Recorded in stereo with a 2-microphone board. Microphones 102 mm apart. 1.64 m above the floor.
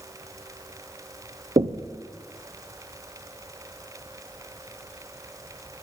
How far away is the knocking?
About 0.7 m.